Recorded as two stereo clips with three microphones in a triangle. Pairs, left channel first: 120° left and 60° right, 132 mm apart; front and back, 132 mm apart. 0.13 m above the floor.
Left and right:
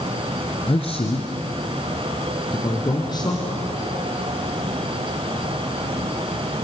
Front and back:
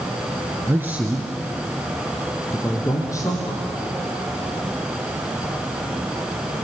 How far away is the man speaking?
About 1.6 m.